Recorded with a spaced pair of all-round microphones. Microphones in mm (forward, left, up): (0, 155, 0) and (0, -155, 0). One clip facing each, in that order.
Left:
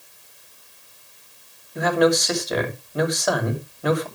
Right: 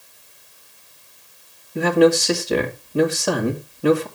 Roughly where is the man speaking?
Right.